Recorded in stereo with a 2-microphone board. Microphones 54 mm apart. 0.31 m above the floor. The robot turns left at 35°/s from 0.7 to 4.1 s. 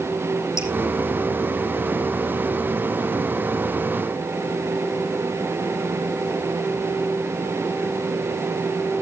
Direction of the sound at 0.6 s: 80° left.